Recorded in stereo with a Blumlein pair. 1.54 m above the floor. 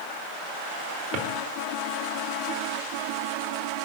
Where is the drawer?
35° right, 2.0 m.